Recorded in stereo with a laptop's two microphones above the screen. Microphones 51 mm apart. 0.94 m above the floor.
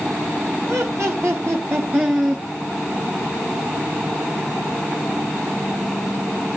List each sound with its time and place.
0.7 s laughter: 70° right (ahead or behind), 2 m; by 2.4 s 15° right (ahead or behind), 1.4 m